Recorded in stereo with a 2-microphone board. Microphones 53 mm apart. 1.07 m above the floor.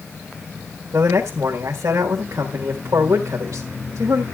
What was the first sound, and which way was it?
A man speaking, 70° right (ahead or behind).